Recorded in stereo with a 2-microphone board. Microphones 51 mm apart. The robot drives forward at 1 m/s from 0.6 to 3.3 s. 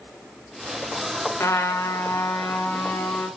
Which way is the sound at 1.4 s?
65° left (ahead or behind).